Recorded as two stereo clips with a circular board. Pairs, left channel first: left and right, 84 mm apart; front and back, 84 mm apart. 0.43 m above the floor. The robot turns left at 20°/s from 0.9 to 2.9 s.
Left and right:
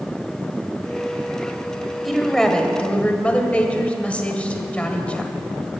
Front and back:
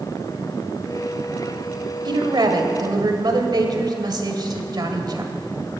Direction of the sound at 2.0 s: Straight behind.